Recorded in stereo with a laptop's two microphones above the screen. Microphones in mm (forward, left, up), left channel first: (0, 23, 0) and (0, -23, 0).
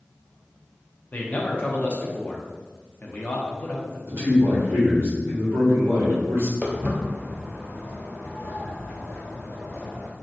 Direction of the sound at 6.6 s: 20° right (ahead or behind).